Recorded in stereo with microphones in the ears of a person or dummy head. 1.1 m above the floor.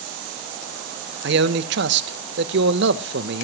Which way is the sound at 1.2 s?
60° right (ahead or behind).